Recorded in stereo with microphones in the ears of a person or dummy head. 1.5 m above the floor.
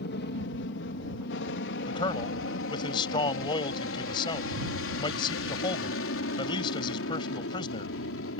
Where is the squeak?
I don't hear a squeak.